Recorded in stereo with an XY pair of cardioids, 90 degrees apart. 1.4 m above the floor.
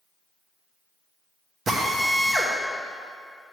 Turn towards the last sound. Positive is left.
turn(degrees=-45)